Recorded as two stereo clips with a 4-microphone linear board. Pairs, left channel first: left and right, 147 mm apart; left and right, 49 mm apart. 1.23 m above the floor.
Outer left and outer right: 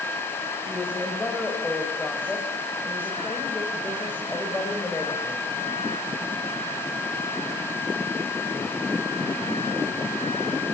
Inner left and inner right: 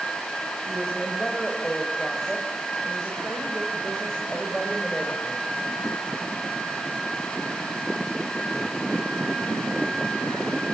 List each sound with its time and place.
0.7 s a woman speaking: 10° left (ahead or behind), 5 m